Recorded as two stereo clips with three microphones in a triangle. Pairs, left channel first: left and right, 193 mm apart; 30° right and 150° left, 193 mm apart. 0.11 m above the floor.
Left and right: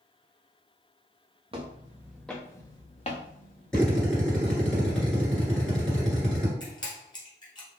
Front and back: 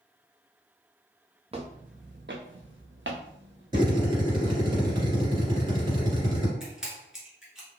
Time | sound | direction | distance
1.5 | footsteps | 150° right | 0.8 m
3.7 | a drill | 170° left | 1.8 m
6.6 | a camera shutter | 70° left | 1.1 m